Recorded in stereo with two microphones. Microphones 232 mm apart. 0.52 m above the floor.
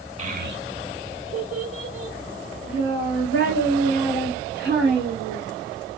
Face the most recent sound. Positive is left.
turn(degrees=-50)  # may be behind; listen again after turning